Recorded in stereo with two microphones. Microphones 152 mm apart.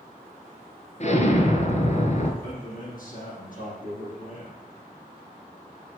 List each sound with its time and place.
1.0 s an explosion: 50° left (ahead or behind), 1.8 m
2.4 s a man speaking: 60° left (ahead or behind), 7 m